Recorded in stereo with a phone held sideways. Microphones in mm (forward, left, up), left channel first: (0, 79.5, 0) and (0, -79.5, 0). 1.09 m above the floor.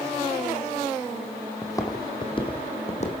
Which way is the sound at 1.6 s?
15° left (ahead or behind).